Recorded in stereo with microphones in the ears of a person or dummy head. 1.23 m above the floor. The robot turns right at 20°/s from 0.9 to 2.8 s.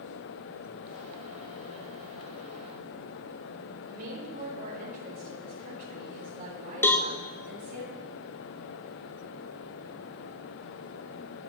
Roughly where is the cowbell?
Centre.